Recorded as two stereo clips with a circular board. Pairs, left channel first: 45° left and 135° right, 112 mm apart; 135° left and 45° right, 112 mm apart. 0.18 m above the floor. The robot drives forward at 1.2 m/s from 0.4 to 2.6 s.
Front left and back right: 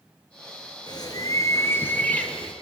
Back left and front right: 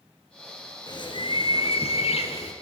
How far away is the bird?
About 3 m.